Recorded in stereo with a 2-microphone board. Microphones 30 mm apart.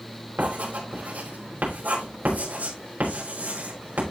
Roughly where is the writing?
Right.